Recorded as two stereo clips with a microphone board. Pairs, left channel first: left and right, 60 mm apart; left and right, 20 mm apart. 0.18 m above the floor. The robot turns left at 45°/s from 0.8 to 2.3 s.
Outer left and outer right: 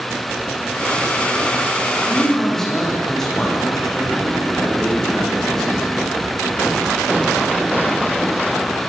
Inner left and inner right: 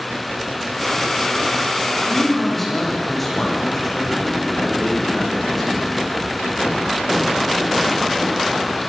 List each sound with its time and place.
2.1 s a man speaking: centre (ahead or behind), 9.5 m; by 5.9 s 10° left (ahead or behind), 9.5 m